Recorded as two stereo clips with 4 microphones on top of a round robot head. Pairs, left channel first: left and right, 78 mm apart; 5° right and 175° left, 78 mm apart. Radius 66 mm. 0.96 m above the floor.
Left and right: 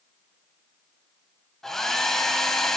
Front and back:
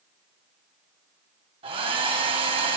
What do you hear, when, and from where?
1.6 s a hair dryer: 175° left, 2.5 m